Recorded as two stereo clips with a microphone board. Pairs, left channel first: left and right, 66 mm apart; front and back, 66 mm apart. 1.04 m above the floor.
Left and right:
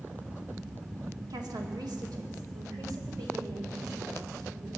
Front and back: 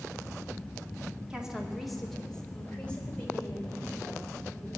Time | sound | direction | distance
1.3 | a woman speaking | 105° right | 1.9 m